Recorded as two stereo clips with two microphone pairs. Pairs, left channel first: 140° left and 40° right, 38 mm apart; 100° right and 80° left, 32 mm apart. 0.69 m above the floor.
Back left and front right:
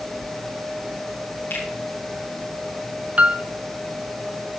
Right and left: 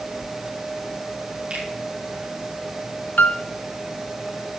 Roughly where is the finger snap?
Behind left.